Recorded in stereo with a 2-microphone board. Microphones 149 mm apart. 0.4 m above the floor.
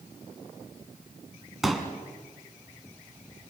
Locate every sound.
1.6 s a pop: centre (ahead or behind), 2.5 m